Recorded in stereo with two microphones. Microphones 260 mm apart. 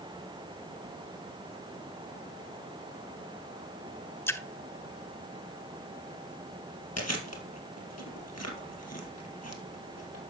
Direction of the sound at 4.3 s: 10° left (ahead or behind).